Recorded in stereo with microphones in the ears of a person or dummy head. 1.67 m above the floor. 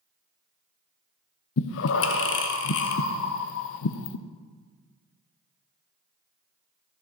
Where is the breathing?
65° left (ahead or behind), 0.7 m.